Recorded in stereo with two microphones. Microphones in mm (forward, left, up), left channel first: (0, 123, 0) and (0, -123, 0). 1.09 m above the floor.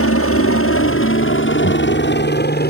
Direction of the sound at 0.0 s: 60° left (ahead or behind).